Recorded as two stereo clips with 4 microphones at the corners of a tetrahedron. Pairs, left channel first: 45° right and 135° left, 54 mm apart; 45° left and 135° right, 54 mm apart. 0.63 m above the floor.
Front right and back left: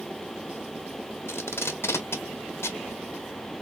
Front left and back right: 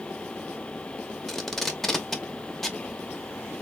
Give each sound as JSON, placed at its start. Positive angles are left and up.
{"t": 1.3, "sound": "tape being pulled", "azimuth_deg": -40, "distance_m": 0.9}